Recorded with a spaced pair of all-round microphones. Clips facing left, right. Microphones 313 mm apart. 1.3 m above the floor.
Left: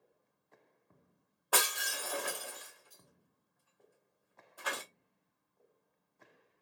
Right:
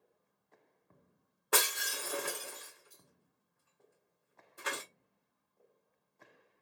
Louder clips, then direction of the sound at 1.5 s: Right 1 dB; 30° right (ahead or behind).